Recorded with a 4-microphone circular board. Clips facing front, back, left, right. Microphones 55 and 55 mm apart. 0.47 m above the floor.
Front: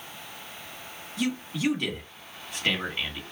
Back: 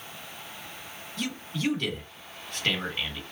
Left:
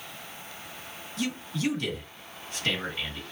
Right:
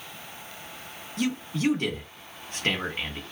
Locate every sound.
1.2 s a man speaking: 75° right, 1.3 m